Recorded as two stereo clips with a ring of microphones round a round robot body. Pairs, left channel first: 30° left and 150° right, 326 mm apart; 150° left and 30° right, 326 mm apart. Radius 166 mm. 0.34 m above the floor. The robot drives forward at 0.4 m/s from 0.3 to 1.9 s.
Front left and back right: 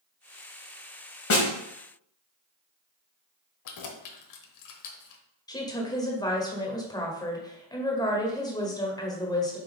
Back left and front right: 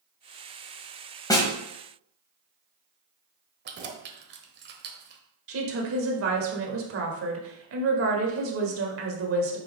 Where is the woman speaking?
45° right, 1.6 m.